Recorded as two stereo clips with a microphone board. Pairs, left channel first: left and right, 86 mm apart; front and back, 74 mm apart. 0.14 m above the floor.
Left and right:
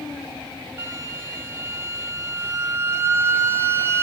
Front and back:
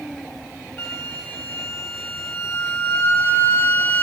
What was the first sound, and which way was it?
A flute, 45° right.